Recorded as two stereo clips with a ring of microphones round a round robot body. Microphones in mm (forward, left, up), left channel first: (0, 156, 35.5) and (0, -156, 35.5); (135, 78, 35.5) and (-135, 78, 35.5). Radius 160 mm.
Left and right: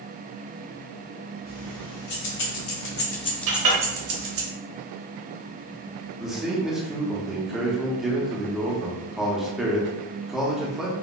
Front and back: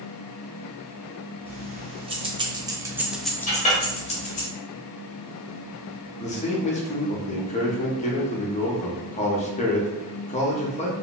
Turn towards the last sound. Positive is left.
turn(degrees=-5)